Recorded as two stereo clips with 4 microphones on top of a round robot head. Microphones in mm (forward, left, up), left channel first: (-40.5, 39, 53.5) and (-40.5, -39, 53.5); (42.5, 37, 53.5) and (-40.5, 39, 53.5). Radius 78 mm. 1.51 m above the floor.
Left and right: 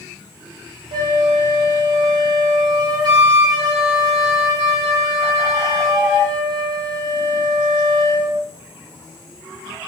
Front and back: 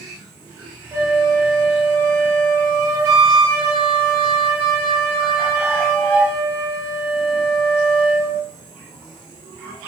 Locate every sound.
0.9 s a flute: 115° right, 0.7 m